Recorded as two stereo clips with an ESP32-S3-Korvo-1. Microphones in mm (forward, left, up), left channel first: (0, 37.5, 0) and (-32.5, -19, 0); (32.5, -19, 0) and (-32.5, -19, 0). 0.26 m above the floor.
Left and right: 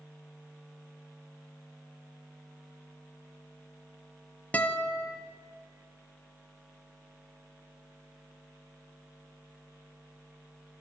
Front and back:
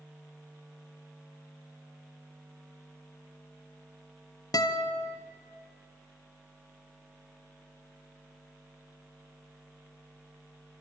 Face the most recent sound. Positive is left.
turn(degrees=-5)